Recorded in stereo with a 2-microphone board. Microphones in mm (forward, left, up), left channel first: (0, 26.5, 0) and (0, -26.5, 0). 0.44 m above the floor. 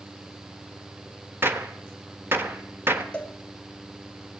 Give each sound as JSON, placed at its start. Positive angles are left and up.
{"t": 1.4, "sound": "a gunshot", "side_deg": -45, "distance_m": 1.2}
{"t": 3.1, "sound": "a cowbell", "side_deg": 20, "distance_m": 1.6}